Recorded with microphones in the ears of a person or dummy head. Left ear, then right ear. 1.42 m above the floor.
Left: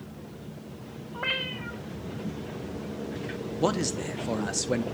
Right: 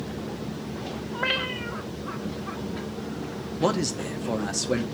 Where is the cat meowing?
10° right (ahead or behind), 1.3 m.